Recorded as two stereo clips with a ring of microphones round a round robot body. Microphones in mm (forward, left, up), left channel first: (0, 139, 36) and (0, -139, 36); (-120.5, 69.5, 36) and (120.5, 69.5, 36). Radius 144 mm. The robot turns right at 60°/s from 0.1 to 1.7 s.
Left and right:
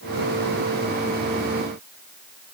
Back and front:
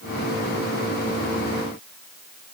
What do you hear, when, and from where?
Only background noise.